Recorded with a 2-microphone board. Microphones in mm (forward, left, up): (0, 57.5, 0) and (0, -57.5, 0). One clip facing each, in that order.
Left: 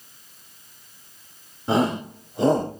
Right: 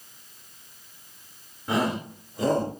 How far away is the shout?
About 3 m.